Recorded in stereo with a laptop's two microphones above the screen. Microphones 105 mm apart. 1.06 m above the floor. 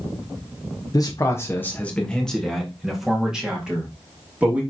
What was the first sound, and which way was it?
A man speaking, 35° left (ahead or behind).